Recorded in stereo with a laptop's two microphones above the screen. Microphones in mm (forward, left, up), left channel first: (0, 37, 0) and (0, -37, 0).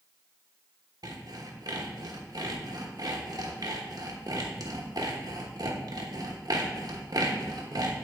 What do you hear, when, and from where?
1.0 s sawing: 60° right (ahead or behind), 1.1 m